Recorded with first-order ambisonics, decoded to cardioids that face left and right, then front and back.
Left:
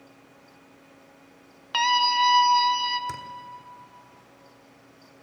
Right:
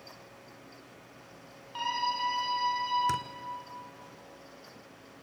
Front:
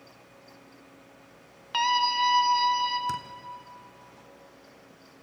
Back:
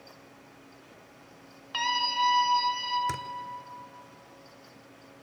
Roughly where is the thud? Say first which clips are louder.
Right 4 dB, front 2 dB; right.